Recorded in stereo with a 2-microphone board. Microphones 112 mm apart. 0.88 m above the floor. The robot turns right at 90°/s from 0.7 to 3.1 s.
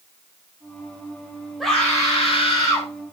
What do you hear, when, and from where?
1.6 s a scream: straight ahead, 4 m; by 2.9 s 115° left, 4 m